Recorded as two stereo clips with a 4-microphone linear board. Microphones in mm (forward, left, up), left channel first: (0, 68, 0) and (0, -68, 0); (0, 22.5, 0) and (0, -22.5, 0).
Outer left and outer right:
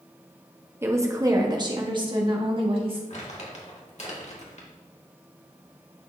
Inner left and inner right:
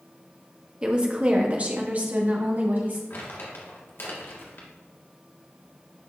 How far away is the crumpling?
About 1.8 m.